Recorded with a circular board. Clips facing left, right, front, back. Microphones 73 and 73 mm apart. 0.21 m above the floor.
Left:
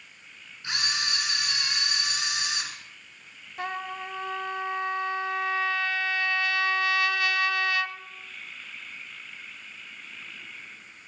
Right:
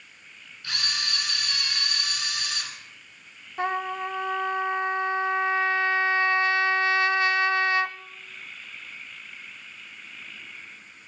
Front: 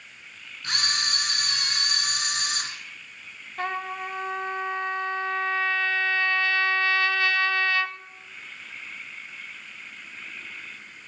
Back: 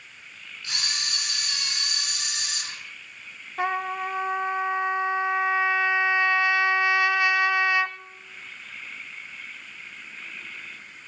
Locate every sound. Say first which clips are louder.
0.6 s a camera shutter: left 2 dB, front 5 dB; 25° left, 2 m
3.6 s a trumpet: right 6 dB, back 4 dB; 120° right, 0.5 m